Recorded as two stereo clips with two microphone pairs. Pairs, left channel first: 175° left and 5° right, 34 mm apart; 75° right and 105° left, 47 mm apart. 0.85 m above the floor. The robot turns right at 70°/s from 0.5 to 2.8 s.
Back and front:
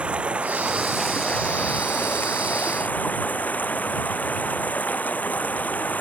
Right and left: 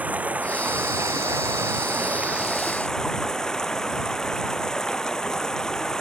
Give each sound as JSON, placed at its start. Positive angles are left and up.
{"t": 0.0, "sound": "running water", "azimuth_deg": 50}